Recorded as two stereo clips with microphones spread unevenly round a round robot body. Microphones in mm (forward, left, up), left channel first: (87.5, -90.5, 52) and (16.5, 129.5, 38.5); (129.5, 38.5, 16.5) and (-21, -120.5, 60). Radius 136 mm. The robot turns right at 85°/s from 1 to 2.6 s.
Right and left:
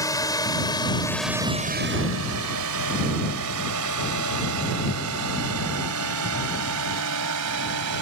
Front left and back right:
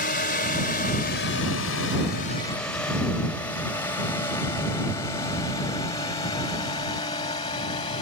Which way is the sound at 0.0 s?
Straight ahead.